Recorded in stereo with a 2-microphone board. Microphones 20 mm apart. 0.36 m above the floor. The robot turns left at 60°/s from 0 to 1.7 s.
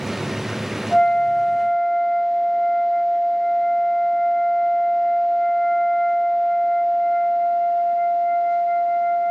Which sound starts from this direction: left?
A flute, at 0.9 s.